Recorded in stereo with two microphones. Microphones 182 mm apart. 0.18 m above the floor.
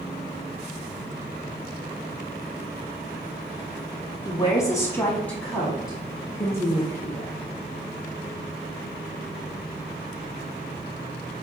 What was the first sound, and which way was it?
A woman speaking, 25° left (ahead or behind).